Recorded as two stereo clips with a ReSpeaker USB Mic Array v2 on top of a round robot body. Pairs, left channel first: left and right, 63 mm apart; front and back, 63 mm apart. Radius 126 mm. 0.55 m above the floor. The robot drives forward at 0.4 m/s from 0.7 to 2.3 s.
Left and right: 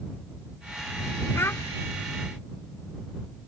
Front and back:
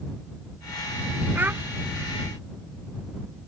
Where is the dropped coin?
I don't hear a dropped coin.